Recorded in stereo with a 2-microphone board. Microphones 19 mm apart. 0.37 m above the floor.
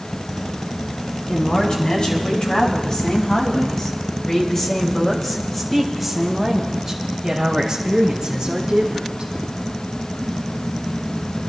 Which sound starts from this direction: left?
A woman speaking, at 1.3 s.